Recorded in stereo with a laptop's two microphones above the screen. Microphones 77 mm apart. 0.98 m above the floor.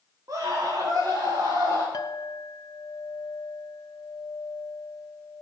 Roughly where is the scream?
Right.